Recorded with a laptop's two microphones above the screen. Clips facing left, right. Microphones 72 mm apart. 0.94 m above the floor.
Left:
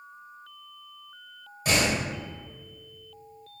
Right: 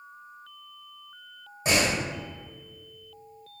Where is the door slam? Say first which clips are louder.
Even; 25° right (ahead or behind), 1.2 m.